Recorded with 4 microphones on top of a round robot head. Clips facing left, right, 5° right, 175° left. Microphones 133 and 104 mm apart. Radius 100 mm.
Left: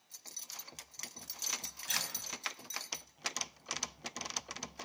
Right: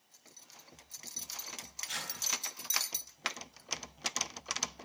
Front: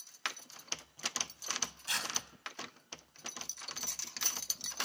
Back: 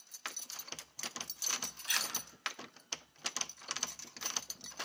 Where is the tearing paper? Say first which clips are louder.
Left 1 dB, even; 50° left, 4.5 m.